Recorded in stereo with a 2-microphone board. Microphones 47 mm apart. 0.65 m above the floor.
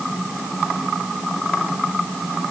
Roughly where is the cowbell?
I don't hear a cowbell.